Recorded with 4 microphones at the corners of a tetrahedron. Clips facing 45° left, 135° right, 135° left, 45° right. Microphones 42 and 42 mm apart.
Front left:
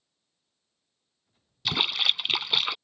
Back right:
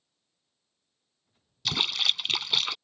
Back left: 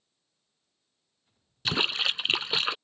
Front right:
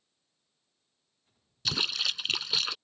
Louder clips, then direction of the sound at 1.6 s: Front left 2 dB, back left 4 dB; 110° left.